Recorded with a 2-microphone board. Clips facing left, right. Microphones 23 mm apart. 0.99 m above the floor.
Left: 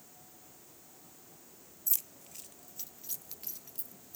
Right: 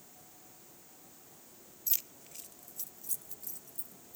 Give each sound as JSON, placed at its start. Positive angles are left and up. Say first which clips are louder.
{"t": 1.9, "sound": "keys jangling", "louder": "right 1 dB", "side_deg": -25, "distance_m": 0.6}